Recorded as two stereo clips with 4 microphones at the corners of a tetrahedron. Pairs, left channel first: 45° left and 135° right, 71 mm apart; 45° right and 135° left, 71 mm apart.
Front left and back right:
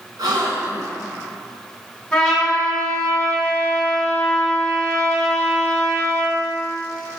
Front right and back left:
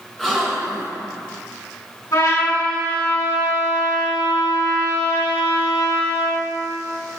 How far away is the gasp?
About 3 m.